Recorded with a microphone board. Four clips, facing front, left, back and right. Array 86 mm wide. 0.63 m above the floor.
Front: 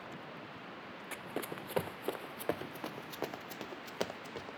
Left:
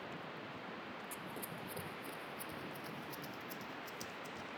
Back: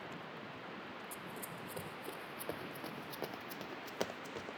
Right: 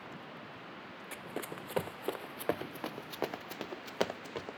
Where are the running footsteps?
30° right; by 4.6 s 95° right.